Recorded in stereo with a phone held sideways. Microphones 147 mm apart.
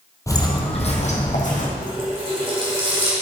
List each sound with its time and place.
0.3 s footsteps: 20° left (ahead or behind), 1.2 m; by 1.7 s 60° left (ahead or behind), 2.5 m
1.8 s a running tap: 35° right (ahead or behind), 2.5 m